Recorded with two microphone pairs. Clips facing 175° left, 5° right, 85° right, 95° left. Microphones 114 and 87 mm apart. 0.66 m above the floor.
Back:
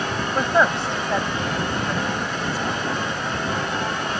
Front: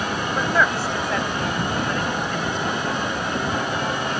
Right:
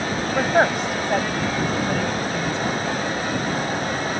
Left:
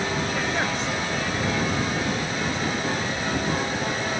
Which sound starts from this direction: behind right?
A woman speaking, at 0.3 s.